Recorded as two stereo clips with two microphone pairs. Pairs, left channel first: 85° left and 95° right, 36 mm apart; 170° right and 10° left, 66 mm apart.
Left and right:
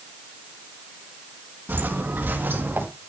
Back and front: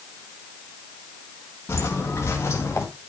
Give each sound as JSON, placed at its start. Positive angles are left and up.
{"t": 1.7, "sound": "footsteps", "azimuth_deg": -120, "distance_m": 5.0}